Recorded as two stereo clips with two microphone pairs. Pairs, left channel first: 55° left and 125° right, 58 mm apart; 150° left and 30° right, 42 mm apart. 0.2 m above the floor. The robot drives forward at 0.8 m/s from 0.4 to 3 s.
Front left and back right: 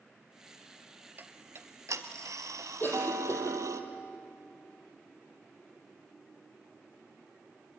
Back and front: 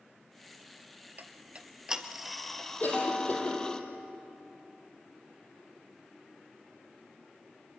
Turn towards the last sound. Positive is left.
turn(degrees=110)